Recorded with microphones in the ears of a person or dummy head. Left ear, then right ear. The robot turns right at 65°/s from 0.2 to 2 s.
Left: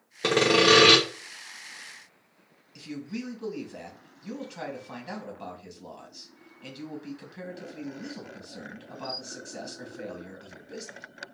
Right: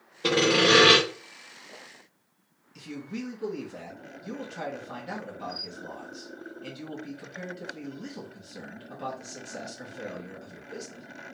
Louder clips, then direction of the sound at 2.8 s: Even; 10° left (ahead or behind).